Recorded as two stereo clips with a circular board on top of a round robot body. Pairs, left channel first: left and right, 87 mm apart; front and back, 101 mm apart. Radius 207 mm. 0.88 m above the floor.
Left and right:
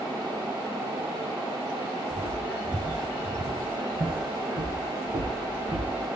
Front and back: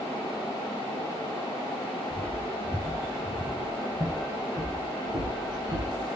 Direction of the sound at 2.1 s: 70° right.